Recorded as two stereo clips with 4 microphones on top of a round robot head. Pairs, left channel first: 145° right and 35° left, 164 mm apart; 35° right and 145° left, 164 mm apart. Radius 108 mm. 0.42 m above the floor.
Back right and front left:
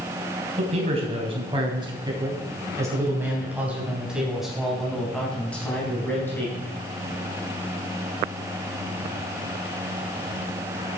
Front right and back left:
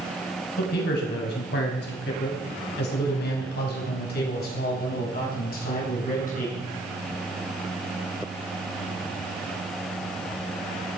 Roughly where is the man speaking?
Ahead.